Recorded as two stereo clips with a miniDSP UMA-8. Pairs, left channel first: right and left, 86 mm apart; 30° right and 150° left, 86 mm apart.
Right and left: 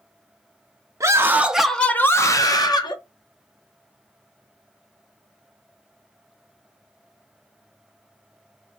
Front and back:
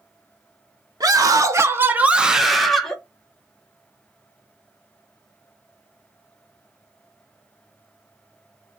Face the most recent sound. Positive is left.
turn(degrees=-115)